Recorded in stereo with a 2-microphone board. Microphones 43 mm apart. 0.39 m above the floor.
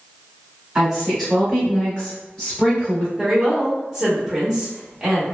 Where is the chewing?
No chewing in this recording.